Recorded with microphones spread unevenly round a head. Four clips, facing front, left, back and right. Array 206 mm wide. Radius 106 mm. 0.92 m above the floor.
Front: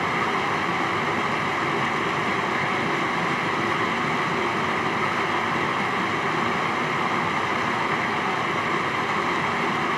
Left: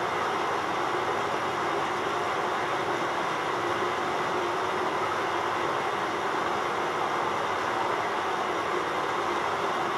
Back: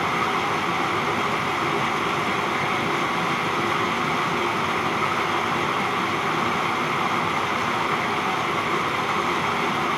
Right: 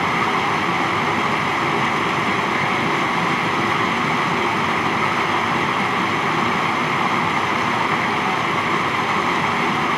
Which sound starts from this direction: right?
Running water, at 0.0 s.